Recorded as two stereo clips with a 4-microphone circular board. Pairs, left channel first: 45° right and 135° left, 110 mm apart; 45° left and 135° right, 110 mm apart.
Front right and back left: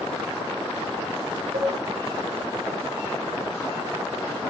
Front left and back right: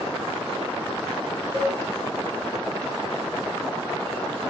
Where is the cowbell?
150° left, 0.7 m.